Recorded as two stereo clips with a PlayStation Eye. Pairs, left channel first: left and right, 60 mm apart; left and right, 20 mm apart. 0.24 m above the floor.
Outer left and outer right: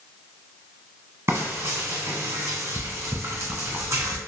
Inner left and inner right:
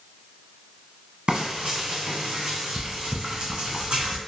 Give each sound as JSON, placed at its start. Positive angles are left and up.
{"t": 1.3, "sound": "frying", "side_deg": -50, "distance_m": 1.2}